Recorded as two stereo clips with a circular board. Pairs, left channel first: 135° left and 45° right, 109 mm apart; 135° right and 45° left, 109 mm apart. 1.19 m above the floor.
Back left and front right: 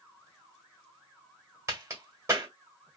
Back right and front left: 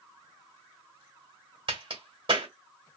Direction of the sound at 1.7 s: 15° left.